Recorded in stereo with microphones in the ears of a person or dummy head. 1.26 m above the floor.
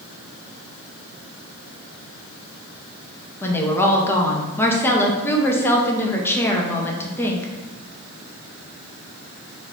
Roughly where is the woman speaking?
Centre.